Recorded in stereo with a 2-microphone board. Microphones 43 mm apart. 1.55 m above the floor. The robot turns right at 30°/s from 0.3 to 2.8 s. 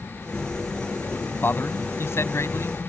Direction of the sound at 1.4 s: 55° left (ahead or behind).